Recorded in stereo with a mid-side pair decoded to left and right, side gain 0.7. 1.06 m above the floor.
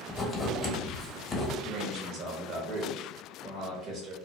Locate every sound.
0.1 s writing: 15° left, 0.9 m
1.6 s a man speaking: 50° right, 0.8 m